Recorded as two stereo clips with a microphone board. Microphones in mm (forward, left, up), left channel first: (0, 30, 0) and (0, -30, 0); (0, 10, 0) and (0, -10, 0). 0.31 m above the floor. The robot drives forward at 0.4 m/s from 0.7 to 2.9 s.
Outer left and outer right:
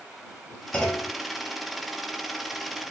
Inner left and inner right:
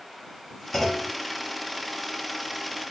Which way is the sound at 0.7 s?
15° left (ahead or behind).